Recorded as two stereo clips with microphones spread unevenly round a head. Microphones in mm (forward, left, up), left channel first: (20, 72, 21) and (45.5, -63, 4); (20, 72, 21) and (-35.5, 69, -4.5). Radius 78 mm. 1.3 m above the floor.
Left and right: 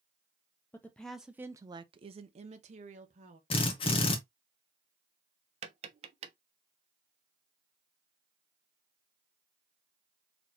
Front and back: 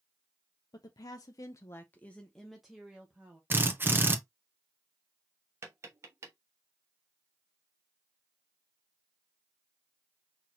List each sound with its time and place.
0.7 s a woman speaking: 20° left, 0.7 m; by 3.4 s 115° right, 1.3 m
3.5 s a drill: 155° left, 0.8 m
5.6 s tapping: 110° right, 0.5 m